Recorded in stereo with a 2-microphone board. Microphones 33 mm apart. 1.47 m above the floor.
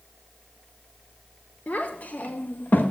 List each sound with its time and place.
1.7 s a child speaking: 55° left (ahead or behind), 1.7 m; by 2.9 s 70° left (ahead or behind), 1.4 m